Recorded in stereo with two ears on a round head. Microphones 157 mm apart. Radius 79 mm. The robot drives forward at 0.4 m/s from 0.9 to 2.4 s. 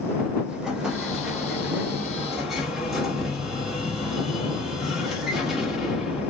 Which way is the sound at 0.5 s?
5° right (ahead or behind).